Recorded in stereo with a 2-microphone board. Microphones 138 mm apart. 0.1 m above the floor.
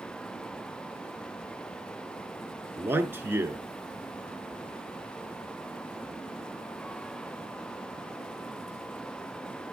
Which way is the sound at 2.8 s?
15° right (ahead or behind).